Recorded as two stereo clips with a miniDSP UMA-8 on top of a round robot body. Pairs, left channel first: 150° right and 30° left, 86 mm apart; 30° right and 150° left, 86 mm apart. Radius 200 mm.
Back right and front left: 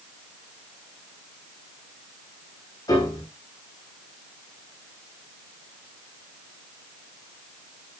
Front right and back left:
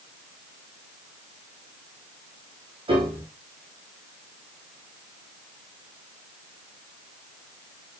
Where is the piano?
165° left, 7 m.